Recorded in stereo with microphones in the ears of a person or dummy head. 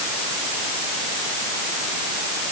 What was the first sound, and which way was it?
Only background noise.